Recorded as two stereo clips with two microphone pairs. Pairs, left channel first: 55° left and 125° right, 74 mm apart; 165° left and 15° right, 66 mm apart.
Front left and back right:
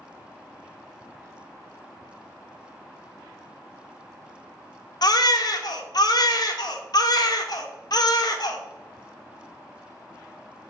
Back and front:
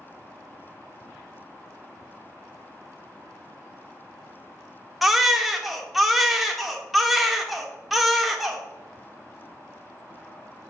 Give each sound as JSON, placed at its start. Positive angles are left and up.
{"t": 5.0, "sound": "a baby crying", "azimuth_deg": 70, "distance_m": 0.5}